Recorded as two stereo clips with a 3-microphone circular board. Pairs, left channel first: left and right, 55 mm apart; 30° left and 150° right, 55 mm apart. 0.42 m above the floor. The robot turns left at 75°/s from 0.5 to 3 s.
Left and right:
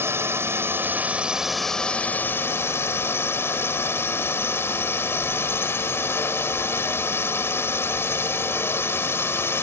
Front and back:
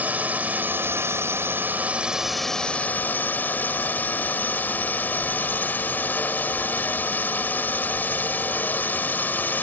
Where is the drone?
100° right; by 9.6 s 75° left.